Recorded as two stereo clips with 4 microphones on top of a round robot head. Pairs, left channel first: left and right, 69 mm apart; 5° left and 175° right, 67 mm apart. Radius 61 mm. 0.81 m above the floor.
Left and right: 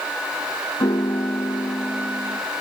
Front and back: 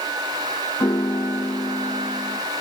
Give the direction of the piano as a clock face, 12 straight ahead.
10 o'clock.